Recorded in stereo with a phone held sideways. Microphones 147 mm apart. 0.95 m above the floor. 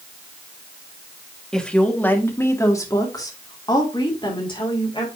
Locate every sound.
1.5 s a woman speaking: 5° left (ahead or behind), 1.5 m; by 5.1 s 35° left (ahead or behind), 3 m